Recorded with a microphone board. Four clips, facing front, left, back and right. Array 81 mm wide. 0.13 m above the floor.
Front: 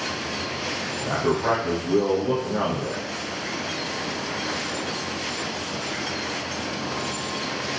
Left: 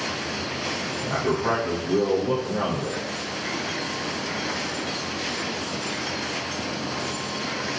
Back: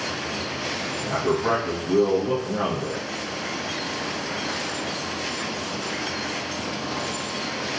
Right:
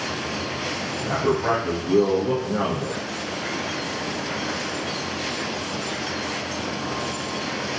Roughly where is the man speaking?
Ahead right.